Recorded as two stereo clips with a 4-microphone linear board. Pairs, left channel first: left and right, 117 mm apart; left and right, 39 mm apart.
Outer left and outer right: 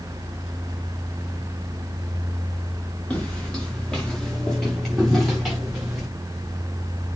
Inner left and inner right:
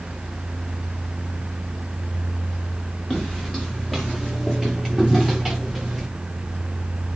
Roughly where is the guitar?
I don't hear a guitar.